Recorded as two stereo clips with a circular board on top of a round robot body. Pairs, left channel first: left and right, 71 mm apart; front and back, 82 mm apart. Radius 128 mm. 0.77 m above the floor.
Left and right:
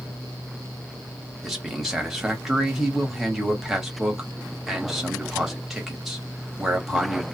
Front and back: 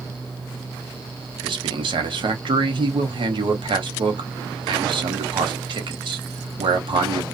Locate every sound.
1.4 s a man speaking: 175° right, 1.1 m